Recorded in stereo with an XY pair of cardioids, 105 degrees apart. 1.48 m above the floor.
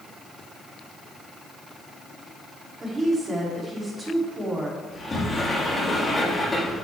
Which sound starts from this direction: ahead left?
A sliding door, at 4.9 s.